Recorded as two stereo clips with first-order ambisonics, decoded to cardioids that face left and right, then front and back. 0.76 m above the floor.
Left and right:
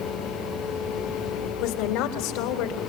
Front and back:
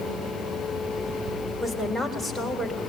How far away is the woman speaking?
About 3 m.